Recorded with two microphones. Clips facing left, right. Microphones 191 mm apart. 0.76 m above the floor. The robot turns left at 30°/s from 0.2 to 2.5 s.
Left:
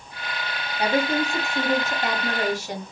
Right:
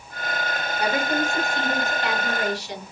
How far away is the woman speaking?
About 1.5 m.